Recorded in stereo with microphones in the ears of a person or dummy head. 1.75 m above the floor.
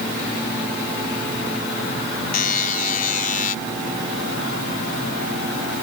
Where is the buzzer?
50° left (ahead or behind).